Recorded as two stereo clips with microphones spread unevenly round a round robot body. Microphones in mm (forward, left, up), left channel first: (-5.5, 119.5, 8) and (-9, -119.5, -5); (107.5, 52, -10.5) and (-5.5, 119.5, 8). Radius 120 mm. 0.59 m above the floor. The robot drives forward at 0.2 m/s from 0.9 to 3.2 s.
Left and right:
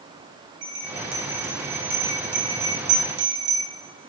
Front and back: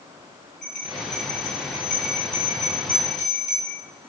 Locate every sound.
0.6 s a bell: 125° right, 2.5 m; by 3.6 s 130° right, 3 m